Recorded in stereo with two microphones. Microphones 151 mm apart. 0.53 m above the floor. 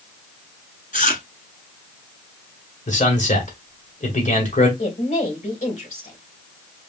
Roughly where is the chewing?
Left.